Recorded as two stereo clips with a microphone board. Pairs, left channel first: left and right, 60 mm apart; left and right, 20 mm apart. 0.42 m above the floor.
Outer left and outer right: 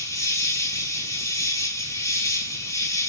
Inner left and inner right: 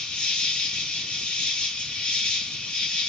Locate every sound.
0.0 s an insect: 60° left (ahead or behind), 4.5 m